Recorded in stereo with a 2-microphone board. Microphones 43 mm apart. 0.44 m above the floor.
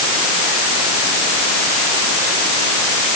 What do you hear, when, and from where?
Only background noise.